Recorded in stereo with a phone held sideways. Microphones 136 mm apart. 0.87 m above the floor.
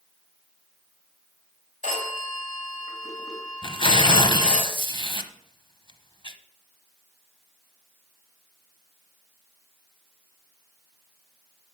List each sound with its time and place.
1.8 s a phone ringing: 70° left (ahead or behind), 3 m
3.6 s tearing paper: 40° left (ahead or behind), 0.8 m